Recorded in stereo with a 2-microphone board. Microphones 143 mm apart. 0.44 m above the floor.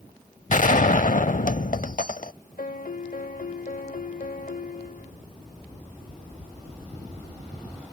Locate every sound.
0.5 s a gunshot: 65° left (ahead or behind)
2.6 s a piano: 70° left (ahead or behind)